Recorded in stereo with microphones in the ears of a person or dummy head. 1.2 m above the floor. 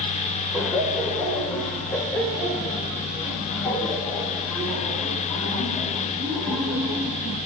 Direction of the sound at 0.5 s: Centre (ahead or behind).